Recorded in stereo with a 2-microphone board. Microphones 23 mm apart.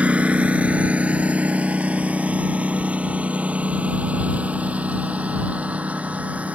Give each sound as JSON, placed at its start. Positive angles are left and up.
{"t": 0.0, "sound": "a lawn mower", "side_deg": -70}